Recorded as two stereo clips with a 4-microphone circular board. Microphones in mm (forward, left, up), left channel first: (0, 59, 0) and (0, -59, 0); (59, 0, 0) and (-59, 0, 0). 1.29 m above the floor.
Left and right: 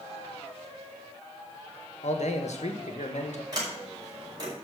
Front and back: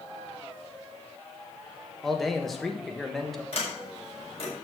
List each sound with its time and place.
2.0 s a man speaking: 90° left, 1.5 m
3.5 s a sliding door: 35° right, 5.5 m